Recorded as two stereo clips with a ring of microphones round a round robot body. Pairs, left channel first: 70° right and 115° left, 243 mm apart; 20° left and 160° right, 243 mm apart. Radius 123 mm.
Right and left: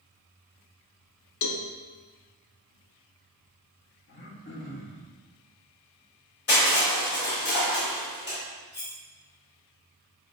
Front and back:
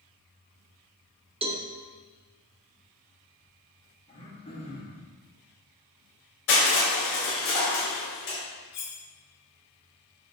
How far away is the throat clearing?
About 1.5 m.